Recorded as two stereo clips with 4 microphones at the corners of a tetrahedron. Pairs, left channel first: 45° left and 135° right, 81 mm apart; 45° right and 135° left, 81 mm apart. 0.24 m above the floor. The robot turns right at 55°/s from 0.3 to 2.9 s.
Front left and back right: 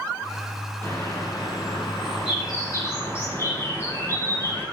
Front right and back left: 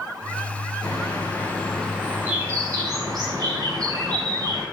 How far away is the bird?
About 2.5 m.